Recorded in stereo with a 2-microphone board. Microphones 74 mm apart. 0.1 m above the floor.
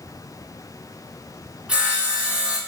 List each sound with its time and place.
1.7 s sawing: 15° right (ahead or behind), 1.5 m